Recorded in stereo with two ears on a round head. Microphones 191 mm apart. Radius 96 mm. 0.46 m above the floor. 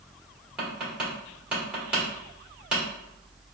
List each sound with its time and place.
0.6 s tapping: 5° right (ahead or behind), 1.5 m